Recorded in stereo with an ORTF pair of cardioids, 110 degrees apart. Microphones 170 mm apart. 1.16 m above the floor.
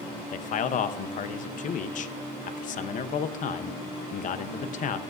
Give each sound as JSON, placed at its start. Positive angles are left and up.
{"t": 0.3, "sound": "a man speaking", "azimuth_deg": 50, "distance_m": 0.9}